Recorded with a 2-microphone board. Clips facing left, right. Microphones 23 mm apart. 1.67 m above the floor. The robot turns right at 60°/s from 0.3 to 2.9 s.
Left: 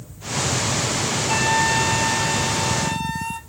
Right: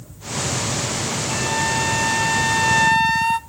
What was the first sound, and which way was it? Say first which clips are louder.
A flute: left 3 dB; 150° left.